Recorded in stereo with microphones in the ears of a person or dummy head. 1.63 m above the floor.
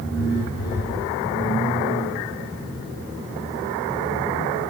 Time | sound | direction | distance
0.1 | a phone buzzing | 65° left (ahead or behind) | 9 m